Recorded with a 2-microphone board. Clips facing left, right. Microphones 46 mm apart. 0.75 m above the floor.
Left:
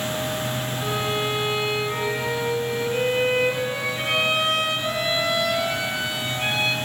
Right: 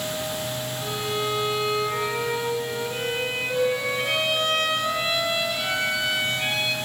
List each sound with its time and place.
0.8 s a violin: 10° left (ahead or behind), 3 m